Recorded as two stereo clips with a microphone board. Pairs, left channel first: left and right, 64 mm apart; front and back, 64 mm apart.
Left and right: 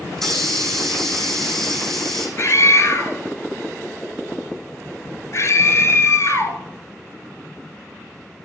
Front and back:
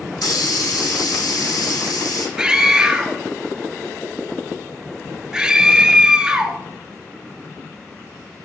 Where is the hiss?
5° left, 2.5 m.